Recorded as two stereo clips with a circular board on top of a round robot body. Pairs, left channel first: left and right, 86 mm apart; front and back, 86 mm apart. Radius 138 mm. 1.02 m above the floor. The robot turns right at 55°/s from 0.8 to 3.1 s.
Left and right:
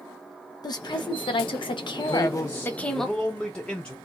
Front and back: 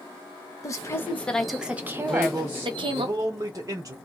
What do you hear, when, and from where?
0.6 s a woman speaking: 55° left, 0.8 m; by 3.1 s straight behind, 0.8 m
2.1 s a man speaking: 105° left, 0.9 m; by 4.0 s 160° left, 0.9 m